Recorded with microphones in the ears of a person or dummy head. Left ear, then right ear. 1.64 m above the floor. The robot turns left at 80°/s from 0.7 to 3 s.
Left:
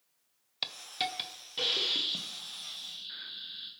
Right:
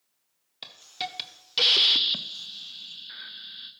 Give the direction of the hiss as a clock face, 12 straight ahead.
11 o'clock.